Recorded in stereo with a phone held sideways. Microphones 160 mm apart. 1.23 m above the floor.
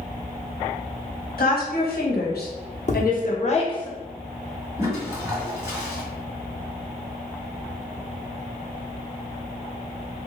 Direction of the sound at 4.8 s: 20° right (ahead or behind).